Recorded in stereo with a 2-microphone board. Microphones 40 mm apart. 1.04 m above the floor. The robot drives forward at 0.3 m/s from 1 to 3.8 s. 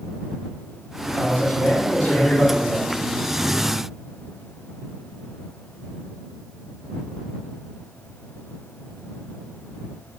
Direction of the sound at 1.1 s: 40° left (ahead or behind).